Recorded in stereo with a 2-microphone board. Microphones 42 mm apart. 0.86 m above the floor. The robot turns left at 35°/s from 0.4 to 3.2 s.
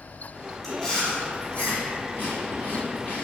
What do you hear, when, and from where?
0.6 s chewing: 10° left (ahead or behind), 0.9 m; by 3.3 s 40° left (ahead or behind), 0.9 m